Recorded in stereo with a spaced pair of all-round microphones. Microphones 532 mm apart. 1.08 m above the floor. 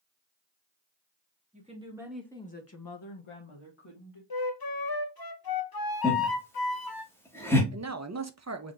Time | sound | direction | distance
1.5 | a woman speaking | 15° right (ahead or behind) | 2.0 m
4.3 | a flute | 45° left (ahead or behind) | 0.6 m
6.0 | laughter | 5° left (ahead or behind) | 1.6 m
7.7 | a man speaking | 30° right (ahead or behind) | 0.6 m